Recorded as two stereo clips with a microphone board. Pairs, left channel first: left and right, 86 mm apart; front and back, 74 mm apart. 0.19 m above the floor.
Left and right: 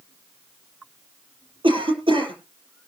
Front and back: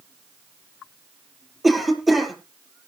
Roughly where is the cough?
Right.